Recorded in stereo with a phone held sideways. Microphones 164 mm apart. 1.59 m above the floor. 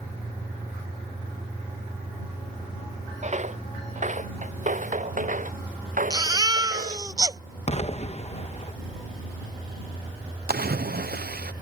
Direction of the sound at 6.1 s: 25° right (ahead or behind).